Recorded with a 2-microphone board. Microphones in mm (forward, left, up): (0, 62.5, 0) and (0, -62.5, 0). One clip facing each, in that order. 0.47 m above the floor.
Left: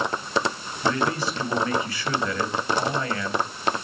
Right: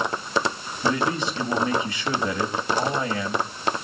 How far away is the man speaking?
About 3 m.